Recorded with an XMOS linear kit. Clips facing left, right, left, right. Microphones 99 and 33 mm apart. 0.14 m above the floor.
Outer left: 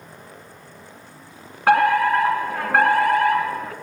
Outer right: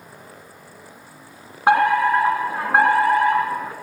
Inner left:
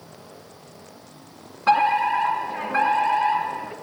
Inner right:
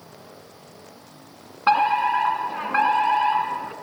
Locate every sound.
1.7 s a fire alarm: 20° right (ahead or behind), 2 m